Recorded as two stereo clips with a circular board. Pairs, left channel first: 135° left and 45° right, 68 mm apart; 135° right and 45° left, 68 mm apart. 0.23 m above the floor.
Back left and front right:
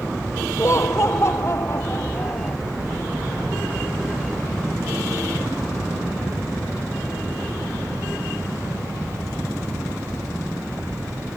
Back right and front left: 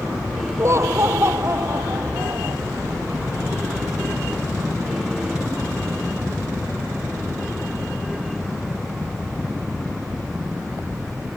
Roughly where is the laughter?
Left.